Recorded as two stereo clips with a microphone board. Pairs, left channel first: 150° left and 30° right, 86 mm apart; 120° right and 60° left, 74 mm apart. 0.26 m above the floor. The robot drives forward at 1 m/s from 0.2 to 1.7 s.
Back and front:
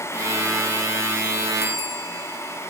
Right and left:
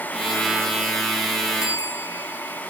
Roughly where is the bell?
Right.